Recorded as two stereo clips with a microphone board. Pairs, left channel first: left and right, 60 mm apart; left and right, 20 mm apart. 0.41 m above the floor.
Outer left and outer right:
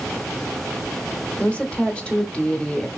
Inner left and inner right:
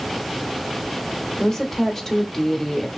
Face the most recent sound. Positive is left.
turn(degrees=20)  # may be behind; listen again after turning